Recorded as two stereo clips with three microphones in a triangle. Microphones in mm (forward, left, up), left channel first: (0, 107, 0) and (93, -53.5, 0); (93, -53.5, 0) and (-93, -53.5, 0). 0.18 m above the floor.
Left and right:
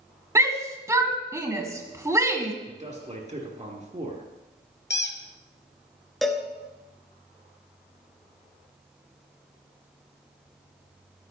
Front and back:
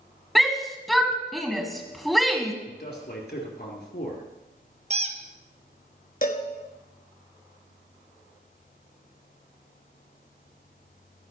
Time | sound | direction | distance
0.3 | a shout | 90° right | 1.4 m
2.7 | a man speaking | 15° right | 3.5 m
4.9 | a squeak | 130° left | 1.2 m
6.2 | a cowbell | 30° left | 1.9 m